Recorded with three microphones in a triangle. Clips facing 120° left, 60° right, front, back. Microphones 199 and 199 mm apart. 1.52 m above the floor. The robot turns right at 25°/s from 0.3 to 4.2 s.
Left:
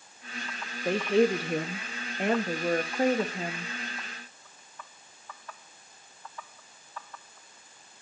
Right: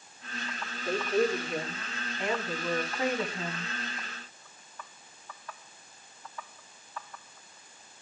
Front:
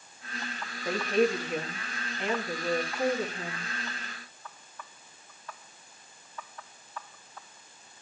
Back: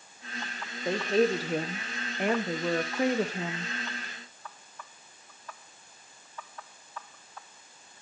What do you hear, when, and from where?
0.8 s a woman speaking: 115° left, 1.0 m; by 3.7 s 175° right, 1.0 m